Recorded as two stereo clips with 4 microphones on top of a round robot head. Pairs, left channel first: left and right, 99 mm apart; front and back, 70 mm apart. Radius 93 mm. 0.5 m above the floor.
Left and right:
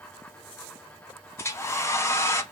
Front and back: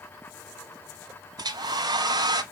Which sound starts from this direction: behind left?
A hair dryer, at 1.4 s.